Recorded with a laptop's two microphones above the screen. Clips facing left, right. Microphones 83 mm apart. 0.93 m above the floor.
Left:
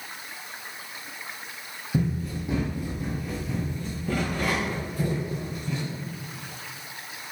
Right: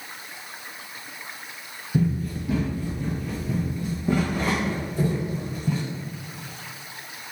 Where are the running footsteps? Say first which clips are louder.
Right 3 dB; 35° left (ahead or behind), 1.4 m; by 5.8 s 40° right (ahead or behind), 2.0 m.